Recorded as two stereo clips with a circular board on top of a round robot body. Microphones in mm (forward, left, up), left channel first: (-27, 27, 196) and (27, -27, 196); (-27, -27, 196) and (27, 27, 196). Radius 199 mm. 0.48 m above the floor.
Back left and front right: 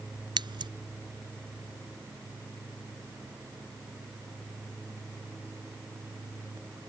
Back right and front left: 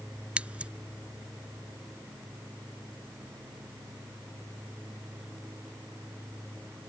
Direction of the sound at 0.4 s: 30° right.